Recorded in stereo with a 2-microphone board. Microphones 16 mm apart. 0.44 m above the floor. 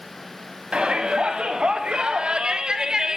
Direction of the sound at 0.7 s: 75° right (ahead or behind).